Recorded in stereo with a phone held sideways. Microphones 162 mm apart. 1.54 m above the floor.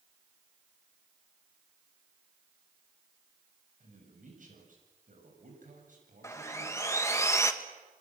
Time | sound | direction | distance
3.8 | a man speaking | 60° right (ahead or behind) | 7.5 m
6.2 | sawing | 20° left (ahead or behind) | 1.6 m